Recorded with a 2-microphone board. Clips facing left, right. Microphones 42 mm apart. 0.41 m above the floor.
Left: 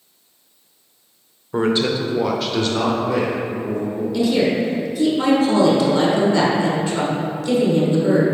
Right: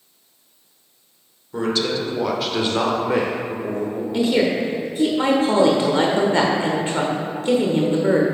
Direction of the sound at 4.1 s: 35° right (ahead or behind).